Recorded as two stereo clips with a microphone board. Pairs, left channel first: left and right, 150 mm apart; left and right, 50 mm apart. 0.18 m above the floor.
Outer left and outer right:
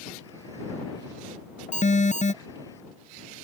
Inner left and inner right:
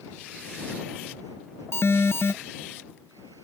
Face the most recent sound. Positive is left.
turn(degrees=60)  # may be behind; listen again after turning